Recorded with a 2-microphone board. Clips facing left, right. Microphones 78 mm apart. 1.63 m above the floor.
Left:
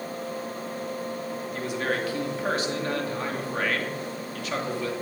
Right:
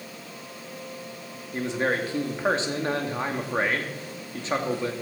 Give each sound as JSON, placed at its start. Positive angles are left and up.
{"t": 1.5, "sound": "a man speaking", "side_deg": -25, "distance_m": 2.5}